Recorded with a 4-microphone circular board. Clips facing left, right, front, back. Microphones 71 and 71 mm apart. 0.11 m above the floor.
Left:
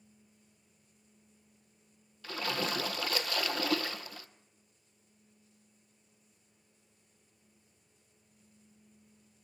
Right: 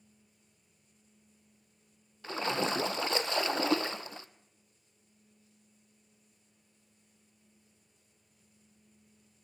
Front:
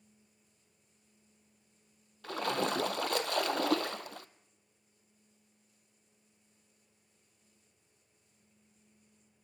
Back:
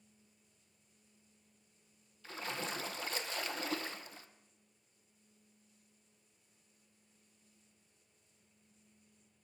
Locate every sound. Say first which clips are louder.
2.2 s a splash: right 3 dB, front 9 dB; 25° right, 0.6 m